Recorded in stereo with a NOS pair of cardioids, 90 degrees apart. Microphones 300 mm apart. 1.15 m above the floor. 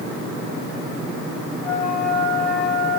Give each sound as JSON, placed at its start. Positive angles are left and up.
{"t": 1.6, "sound": "a flute", "azimuth_deg": -70, "distance_m": 5.5}